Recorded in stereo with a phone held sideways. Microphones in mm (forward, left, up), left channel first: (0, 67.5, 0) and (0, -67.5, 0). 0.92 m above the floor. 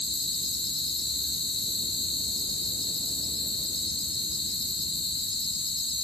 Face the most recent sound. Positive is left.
turn(degrees=35)  # may be behind; listen again after turning